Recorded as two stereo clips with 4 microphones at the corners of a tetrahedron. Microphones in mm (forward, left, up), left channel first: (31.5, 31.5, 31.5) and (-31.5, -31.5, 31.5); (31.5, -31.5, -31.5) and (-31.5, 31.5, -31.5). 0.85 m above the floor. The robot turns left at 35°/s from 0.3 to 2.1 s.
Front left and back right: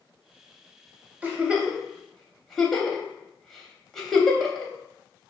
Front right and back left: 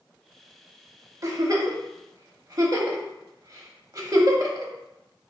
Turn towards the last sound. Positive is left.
turn(degrees=130)